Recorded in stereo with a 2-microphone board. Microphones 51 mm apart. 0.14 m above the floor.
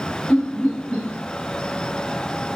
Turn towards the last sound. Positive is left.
turn(degrees=20)  # may be behind; listen again after turning